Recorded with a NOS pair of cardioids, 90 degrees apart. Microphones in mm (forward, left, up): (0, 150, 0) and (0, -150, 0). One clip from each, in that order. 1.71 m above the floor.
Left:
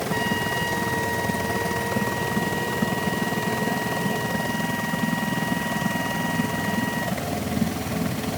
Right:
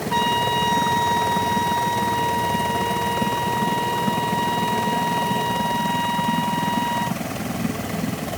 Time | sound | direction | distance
0.1 | a trumpet | 40° right | ?